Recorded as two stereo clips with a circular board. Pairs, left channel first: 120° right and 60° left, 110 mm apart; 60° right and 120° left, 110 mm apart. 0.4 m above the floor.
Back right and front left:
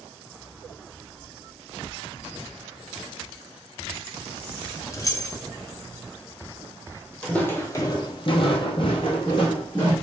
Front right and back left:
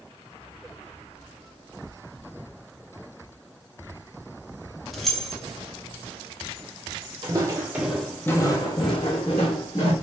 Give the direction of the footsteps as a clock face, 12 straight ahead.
7 o'clock.